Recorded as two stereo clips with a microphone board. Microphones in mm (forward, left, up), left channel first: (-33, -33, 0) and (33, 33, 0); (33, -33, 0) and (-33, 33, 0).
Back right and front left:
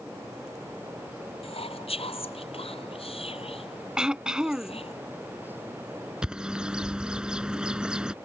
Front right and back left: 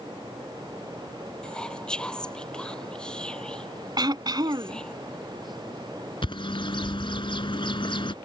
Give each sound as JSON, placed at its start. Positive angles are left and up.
{"t": 1.4, "sound": "whispering", "azimuth_deg": -125}
{"t": 4.0, "sound": "throat clearing", "azimuth_deg": 125}
{"t": 6.2, "sound": "a bird", "azimuth_deg": -35}